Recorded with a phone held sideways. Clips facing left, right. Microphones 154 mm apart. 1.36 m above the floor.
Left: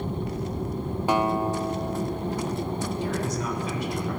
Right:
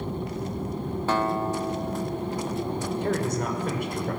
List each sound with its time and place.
1.1 s a guitar: 15° left (ahead or behind), 1.1 m
3.0 s a man speaking: 55° right (ahead or behind), 6 m